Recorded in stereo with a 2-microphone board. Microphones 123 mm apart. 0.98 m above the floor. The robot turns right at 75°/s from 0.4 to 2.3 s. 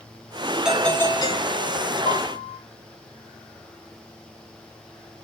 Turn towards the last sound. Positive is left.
turn(degrees=45)  # may be behind; listen again after turning